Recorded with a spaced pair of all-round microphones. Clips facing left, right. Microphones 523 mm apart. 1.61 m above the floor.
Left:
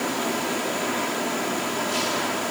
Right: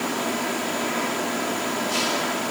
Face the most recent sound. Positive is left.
No sound to turn to.